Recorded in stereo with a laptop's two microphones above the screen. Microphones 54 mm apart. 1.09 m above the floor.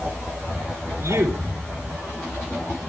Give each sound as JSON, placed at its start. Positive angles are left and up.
{"t": 1.0, "sound": "a man speaking", "side_deg": -80, "distance_m": 3.5}